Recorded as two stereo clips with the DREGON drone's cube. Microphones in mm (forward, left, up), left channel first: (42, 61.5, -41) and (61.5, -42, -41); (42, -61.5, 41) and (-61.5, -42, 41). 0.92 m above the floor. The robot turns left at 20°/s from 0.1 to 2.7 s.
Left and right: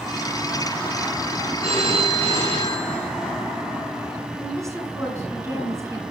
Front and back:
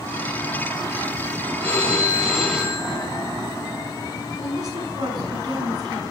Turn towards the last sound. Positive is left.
turn(degrees=-140)